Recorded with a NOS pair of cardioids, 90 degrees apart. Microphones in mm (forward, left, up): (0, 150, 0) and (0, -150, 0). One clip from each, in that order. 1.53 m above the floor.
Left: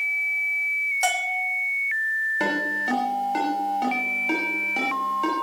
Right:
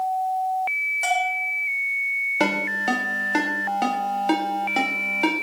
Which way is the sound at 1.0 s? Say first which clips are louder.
Right 1 dB; 45° left.